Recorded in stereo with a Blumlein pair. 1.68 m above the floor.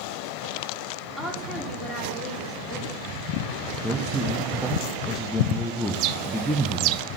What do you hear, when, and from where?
1.2 s a woman speaking: 10° left, 4.5 m
3.8 s a man speaking: straight ahead, 1.1 m
5.9 s a bird: 40° right, 0.5 m